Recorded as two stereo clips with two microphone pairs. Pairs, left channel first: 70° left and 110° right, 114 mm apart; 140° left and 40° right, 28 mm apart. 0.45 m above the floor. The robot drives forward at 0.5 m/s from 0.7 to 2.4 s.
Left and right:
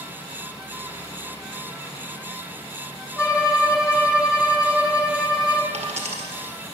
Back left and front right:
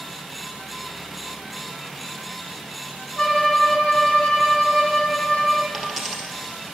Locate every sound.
3.2 s a violin: 170° left, 1.5 m
5.7 s a dropped coin: 125° right, 1.6 m